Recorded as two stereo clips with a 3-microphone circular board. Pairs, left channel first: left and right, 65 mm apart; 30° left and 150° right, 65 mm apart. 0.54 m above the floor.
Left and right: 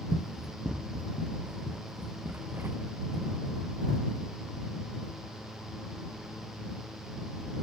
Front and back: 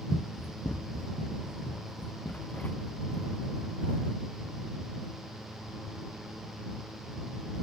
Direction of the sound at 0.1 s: 5° left.